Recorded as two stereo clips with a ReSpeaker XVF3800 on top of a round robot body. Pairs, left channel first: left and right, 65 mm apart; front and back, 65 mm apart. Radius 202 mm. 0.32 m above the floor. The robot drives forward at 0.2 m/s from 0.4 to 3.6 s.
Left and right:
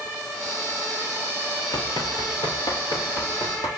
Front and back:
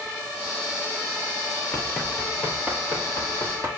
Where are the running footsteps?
65° left, 0.6 m; by 3.7 s 125° left, 1.5 m.